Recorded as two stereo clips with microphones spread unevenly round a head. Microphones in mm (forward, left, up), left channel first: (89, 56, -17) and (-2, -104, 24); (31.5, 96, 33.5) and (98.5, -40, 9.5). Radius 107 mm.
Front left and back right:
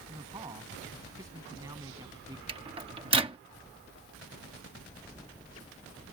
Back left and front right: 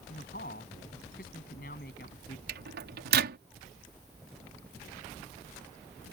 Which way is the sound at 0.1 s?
165° left.